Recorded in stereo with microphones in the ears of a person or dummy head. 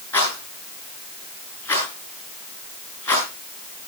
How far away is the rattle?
About 8.5 m.